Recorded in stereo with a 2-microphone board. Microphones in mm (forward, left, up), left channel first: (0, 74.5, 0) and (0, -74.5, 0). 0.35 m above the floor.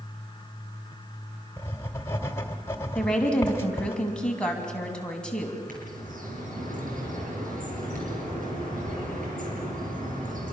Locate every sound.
1.6 s writing: 20° left (ahead or behind), 1.7 m
3.0 s a woman speaking: 5° left (ahead or behind), 3.5 m
5.7 s a bird: 75° right (ahead or behind), 7 m